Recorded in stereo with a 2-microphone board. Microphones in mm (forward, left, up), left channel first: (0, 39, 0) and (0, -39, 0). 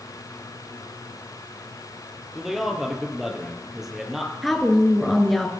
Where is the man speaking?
5° right (ahead or behind), 3.5 m.